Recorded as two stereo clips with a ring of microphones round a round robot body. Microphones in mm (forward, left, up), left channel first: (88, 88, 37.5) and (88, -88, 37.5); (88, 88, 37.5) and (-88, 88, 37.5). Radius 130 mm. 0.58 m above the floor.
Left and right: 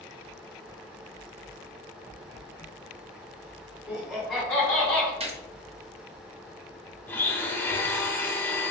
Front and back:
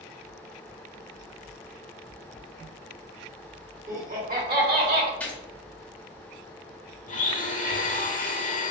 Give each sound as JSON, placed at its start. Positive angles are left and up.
{"t": 3.9, "sound": "laughter", "azimuth_deg": -170, "distance_m": 1.3}
{"t": 5.2, "sound": "a gunshot", "azimuth_deg": -75, "distance_m": 0.8}
{"t": 7.1, "sound": "a blender", "azimuth_deg": 15, "distance_m": 0.8}